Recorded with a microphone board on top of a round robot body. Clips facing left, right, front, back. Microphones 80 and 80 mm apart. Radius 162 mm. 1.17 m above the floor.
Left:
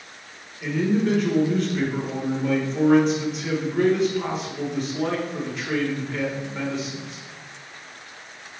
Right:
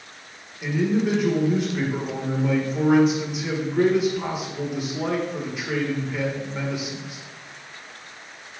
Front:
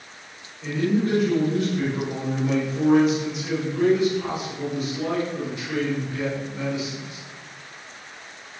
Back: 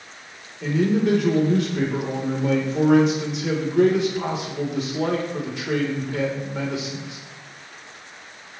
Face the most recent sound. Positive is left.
turn(degrees=-175)